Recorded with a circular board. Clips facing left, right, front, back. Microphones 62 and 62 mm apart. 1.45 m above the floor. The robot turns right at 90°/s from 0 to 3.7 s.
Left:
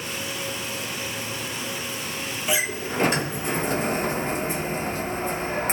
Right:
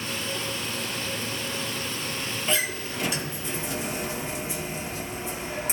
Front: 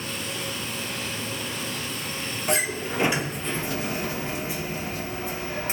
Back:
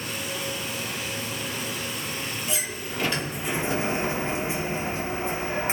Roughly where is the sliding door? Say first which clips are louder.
Left 3 dB, front 6 dB; ahead.